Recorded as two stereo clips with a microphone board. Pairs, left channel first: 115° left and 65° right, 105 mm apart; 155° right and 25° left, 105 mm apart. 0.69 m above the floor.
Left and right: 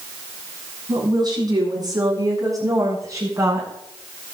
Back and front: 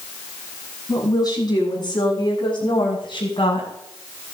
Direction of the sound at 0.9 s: 110° right.